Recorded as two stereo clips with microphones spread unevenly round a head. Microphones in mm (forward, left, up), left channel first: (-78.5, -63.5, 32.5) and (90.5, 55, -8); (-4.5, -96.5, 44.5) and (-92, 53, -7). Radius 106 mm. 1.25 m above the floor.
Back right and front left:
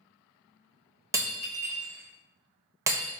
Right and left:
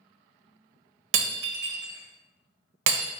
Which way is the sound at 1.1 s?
120° left.